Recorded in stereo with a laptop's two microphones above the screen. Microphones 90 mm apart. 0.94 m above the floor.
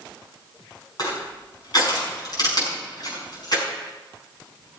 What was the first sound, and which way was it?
Crushing, 50° left (ahead or behind).